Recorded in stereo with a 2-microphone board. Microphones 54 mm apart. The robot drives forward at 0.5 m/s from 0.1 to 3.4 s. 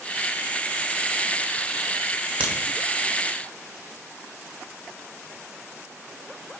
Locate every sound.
2.4 s a crack: 25° right (ahead or behind), 1.4 m; by 2.5 s 20° right (ahead or behind), 1.4 m